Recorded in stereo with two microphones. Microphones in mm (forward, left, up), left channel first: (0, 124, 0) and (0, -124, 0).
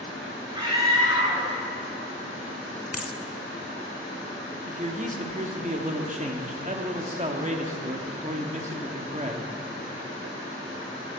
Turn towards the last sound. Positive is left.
turn(degrees=-30)  # may be behind; listen again after turning